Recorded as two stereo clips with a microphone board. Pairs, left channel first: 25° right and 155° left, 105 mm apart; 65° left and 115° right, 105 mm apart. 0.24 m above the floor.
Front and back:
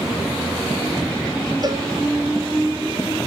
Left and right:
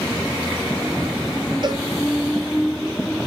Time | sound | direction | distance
1.6 | a cowbell | 155° right | 1.0 m